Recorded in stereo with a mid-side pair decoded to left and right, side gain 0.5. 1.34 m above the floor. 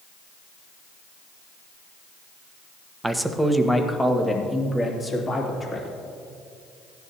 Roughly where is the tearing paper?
I don't hear tearing paper.